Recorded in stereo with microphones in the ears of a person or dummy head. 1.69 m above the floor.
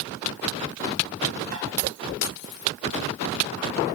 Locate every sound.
1.5 s tapping: 50° right (ahead or behind), 2 m